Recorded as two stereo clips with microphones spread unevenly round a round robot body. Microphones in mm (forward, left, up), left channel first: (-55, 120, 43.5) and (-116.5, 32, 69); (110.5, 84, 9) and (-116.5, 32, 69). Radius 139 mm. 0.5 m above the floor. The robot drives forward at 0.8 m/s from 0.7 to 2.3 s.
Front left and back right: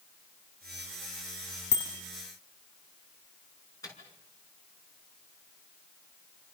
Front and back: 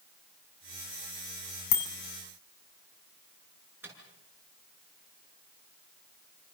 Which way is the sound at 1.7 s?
10° left.